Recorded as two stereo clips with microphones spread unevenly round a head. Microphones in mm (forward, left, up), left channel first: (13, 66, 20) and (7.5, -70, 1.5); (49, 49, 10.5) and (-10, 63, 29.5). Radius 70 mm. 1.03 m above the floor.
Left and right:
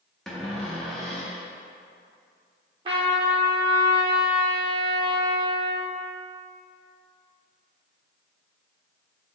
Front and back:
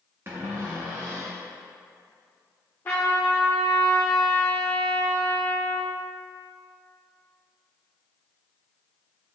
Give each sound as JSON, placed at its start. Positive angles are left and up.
{"t": 0.3, "sound": "a cupboard door", "azimuth_deg": 170, "distance_m": 0.5}
{"t": 2.9, "sound": "a trumpet", "azimuth_deg": -80, "distance_m": 0.6}